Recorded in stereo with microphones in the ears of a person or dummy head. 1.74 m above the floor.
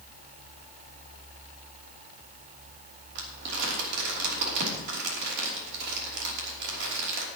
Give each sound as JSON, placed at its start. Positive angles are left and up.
{"t": 3.1, "sound": "crumpling", "side_deg": -65, "distance_m": 3.0}